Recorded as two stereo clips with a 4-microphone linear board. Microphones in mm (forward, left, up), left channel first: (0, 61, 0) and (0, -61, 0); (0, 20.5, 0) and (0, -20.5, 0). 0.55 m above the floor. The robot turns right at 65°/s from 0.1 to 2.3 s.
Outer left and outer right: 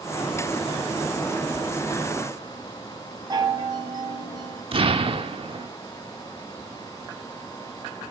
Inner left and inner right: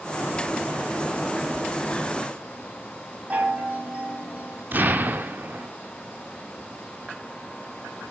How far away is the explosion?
About 1.2 m.